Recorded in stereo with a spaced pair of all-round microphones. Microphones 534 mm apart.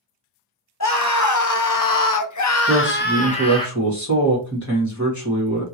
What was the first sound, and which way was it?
A scream, 30° left (ahead or behind).